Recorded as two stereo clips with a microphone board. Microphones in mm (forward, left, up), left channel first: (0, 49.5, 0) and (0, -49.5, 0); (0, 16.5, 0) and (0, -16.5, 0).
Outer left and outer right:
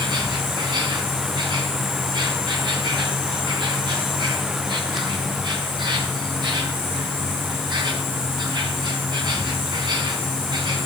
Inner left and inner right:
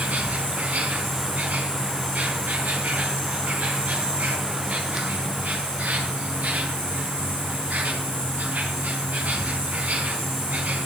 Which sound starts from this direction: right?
An insect, at 0.0 s.